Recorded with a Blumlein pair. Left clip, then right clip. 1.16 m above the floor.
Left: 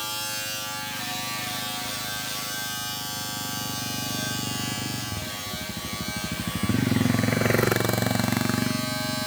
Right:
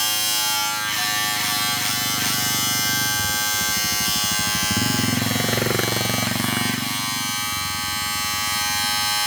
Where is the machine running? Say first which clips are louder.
Right 9 dB; 50° right, 3 m.